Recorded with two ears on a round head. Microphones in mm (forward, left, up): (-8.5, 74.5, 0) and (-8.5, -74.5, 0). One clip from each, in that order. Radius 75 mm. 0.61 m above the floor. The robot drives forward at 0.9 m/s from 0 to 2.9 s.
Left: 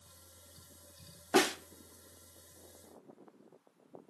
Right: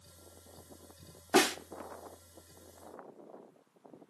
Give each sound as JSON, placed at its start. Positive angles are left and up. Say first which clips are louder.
{"t": 1.3, "sound": "a snare drum", "louder": "right 2 dB", "side_deg": -5, "distance_m": 0.7}